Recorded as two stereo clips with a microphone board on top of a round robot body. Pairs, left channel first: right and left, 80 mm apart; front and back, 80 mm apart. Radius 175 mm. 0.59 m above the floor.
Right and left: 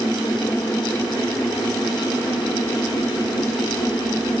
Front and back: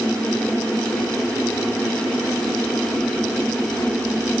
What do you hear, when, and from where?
Only background noise.